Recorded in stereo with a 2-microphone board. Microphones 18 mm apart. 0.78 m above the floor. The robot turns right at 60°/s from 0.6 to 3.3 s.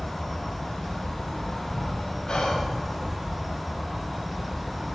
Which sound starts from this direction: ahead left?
An insect, at 0.0 s.